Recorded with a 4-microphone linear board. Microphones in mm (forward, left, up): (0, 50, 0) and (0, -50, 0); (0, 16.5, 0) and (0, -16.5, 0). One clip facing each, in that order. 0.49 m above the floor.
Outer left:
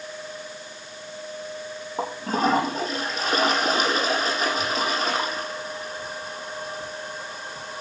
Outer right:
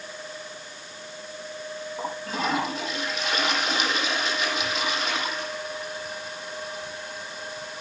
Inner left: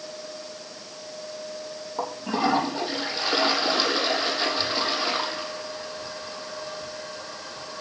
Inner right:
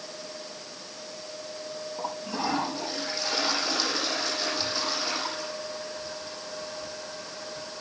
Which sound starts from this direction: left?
A toilet flushing, at 2.0 s.